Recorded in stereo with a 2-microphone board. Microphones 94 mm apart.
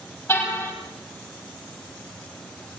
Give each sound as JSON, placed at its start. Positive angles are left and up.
{"t": 0.3, "sound": "a car horn", "side_deg": 25, "distance_m": 6.5}